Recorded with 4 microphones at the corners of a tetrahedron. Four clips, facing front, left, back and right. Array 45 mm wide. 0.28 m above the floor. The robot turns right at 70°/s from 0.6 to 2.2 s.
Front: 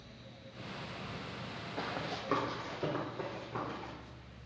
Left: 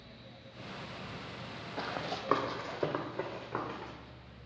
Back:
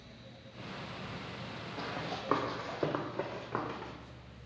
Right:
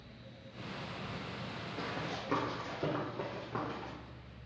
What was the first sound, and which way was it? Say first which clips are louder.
Running footsteps: left 3 dB, even; 60° left.